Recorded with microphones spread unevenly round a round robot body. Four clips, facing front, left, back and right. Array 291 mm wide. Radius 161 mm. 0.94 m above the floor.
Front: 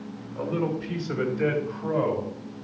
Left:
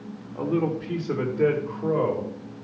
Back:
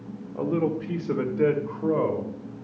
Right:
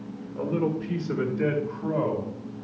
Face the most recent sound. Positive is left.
turn(degrees=165)